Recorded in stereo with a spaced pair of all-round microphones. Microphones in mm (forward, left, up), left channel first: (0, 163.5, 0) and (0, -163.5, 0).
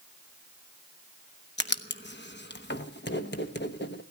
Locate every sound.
1.6 s writing: 35° left (ahead or behind), 1.0 m